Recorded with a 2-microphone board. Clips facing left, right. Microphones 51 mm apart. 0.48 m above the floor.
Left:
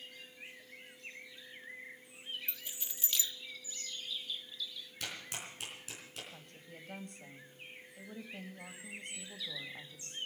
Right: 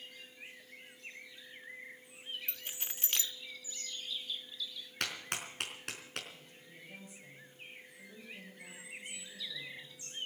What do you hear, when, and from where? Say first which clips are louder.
2.5 s keys jangling: right 2 dB; 50° right (ahead or behind), 0.6 m
5.0 s a clap: right 5 dB; 65° right (ahead or behind), 4 m
6.3 s a woman speaking: left 2 dB; 65° left (ahead or behind), 3 m